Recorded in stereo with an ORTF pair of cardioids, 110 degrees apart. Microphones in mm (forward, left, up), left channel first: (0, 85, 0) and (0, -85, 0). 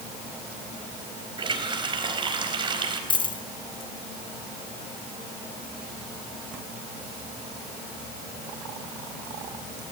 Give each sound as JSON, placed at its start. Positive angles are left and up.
{"t": 1.4, "sound": "a running tap", "azimuth_deg": -30, "distance_m": 4.0}
{"t": 3.1, "sound": "a dropped coin", "azimuth_deg": 30, "distance_m": 3.0}